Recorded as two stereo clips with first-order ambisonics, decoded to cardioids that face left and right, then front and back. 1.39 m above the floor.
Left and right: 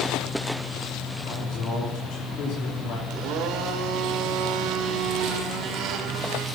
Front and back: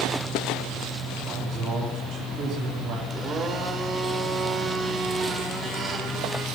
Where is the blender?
120° right, 1.8 m.